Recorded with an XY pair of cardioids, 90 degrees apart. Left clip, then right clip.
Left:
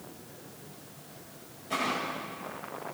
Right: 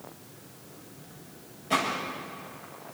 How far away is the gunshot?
About 10 m.